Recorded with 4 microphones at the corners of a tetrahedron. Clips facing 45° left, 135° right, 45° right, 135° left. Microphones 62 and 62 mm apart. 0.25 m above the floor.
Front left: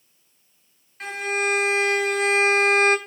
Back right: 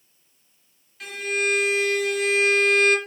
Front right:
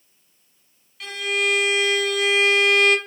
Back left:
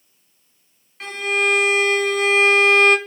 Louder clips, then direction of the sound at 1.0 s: Front left 1 dB, back left 3 dB; 90° left.